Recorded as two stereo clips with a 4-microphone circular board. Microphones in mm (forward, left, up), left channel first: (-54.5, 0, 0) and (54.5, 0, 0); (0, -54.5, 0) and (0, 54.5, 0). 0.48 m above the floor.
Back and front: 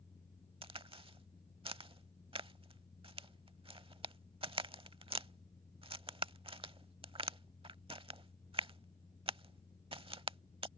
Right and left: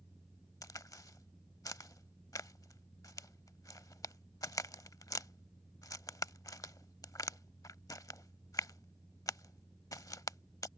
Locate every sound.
0.6 s a crack: 35° right